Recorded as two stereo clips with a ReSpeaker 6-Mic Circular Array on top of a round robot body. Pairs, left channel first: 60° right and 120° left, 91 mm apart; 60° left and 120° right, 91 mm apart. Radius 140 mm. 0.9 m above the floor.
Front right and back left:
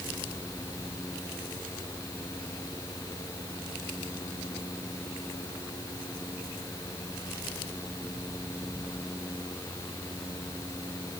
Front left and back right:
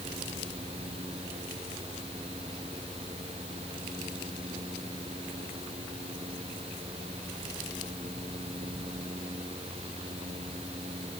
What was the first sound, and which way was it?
Only background noise.